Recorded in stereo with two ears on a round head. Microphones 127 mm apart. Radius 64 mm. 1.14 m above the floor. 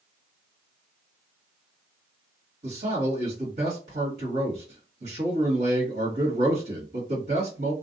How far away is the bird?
I don't hear a bird.